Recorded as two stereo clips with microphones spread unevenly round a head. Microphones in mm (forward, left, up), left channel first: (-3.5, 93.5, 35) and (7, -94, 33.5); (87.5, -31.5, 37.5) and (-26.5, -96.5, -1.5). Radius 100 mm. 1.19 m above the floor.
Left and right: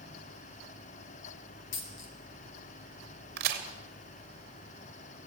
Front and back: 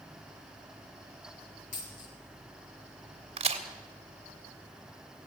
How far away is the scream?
I don't hear a scream.